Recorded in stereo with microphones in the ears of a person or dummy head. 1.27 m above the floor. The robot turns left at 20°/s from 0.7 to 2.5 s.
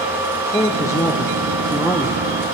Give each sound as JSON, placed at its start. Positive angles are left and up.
{"t": 0.5, "sound": "a man speaking", "azimuth_deg": 30, "distance_m": 0.6}